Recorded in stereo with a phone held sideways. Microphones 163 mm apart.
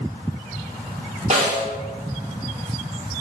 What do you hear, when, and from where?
1.3 s a snare drum: 45° right (ahead or behind), 1.1 m